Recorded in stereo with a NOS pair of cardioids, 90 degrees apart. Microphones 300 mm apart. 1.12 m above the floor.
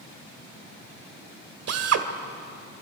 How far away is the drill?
About 2 m.